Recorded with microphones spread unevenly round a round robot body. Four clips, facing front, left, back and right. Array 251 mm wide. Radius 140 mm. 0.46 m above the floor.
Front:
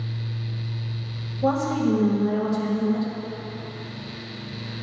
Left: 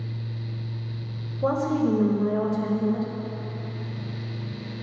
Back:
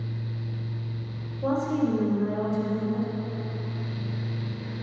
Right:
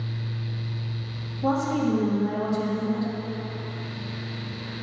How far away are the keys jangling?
No keys jangling in this recording.